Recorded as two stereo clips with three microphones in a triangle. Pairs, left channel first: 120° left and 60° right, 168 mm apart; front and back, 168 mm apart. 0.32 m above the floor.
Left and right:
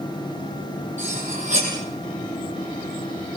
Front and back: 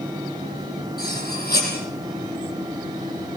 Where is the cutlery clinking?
20° right, 7.5 m.